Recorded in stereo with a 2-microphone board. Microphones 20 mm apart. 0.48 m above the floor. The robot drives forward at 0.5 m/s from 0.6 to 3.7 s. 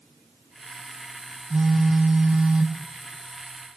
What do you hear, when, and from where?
1.5 s a phone buzzing: 80° right, 2.5 m; by 2.8 s 85° right, 2.5 m